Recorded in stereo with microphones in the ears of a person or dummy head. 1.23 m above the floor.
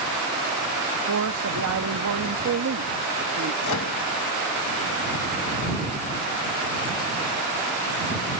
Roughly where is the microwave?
Left.